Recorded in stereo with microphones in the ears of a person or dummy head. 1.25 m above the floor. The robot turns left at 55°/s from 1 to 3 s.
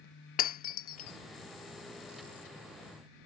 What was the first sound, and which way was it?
Breaking glass, 45° left (ahead or behind).